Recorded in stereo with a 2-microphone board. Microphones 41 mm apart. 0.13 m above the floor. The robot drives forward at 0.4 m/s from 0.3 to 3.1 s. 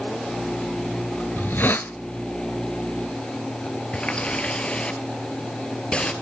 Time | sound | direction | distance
1.4 | a hiss | 55° left (ahead or behind) | 0.7 m
3.9 | a running tap | 25° left (ahead or behind) | 1.9 m